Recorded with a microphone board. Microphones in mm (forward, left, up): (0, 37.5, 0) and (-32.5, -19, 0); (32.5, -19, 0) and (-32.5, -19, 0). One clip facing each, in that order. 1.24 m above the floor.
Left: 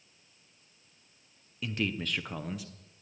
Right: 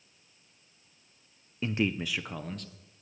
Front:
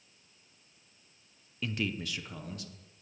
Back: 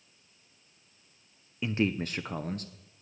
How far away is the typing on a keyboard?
No typing on a keyboard in this recording.